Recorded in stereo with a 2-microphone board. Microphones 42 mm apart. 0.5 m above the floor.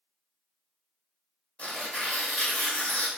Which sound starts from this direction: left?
Tearing paper, at 1.6 s.